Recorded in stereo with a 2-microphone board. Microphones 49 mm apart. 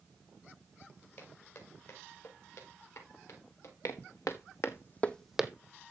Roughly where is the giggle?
I don't hear a giggle.